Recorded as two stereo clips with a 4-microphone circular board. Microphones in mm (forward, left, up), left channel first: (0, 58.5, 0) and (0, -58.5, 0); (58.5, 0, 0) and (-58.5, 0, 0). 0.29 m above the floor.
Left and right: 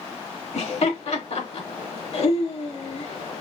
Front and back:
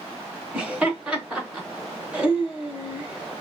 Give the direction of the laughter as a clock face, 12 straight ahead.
9 o'clock.